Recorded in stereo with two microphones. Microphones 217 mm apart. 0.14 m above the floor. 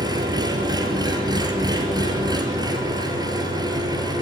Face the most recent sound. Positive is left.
turn(degrees=-20)  # may be behind; listen again after turning